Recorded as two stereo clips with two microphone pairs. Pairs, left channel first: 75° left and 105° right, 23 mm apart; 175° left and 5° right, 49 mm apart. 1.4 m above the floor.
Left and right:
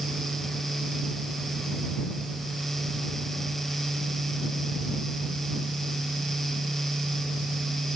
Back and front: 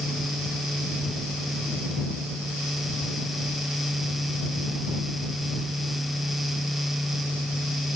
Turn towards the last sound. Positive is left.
No sound to turn to.